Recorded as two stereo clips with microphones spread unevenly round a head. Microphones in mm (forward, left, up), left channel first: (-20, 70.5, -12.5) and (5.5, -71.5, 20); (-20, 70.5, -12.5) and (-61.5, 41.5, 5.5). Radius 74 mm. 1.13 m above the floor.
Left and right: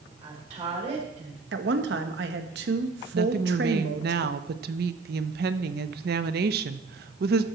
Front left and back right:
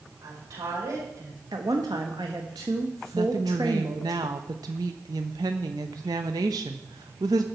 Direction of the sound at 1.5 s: 95° right.